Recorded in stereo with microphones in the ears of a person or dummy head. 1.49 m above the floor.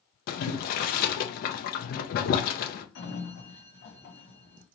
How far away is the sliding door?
About 1.5 m.